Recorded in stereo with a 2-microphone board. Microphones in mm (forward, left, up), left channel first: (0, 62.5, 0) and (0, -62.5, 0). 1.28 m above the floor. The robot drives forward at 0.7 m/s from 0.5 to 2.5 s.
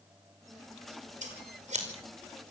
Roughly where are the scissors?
Right.